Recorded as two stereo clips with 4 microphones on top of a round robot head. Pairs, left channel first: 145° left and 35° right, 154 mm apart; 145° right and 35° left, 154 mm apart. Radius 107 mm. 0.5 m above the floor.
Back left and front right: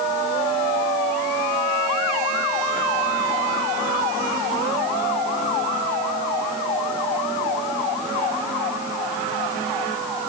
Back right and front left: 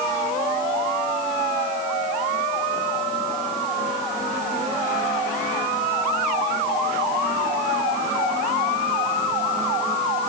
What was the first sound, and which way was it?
Only background noise.